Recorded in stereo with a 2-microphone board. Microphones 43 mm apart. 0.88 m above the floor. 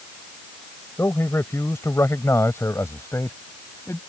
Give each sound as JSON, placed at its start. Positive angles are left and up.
{"t": 1.0, "sound": "a man speaking", "side_deg": 70}